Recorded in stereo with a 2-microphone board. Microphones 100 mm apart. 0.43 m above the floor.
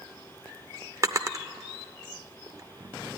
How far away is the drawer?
About 0.5 m.